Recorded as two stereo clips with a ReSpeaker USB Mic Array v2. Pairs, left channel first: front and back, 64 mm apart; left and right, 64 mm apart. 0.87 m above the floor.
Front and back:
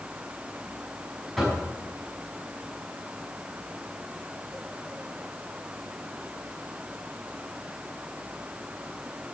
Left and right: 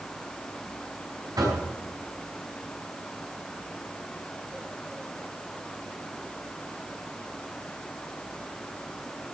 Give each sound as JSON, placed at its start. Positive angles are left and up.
{"t": 1.4, "sound": "knocking", "azimuth_deg": -90, "distance_m": 6.0}